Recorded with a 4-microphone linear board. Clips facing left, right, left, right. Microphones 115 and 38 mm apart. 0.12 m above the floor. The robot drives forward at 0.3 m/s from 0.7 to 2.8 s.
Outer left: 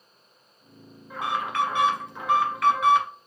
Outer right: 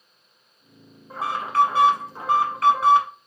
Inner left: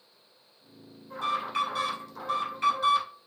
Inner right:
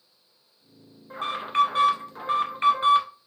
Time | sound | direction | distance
1.1 | an alarm | 35° right (ahead or behind) | 1.6 m